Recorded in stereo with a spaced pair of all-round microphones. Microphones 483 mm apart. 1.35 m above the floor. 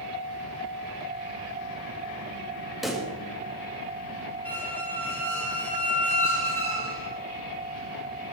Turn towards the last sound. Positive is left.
turn(degrees=-30)  # may be behind; listen again after turning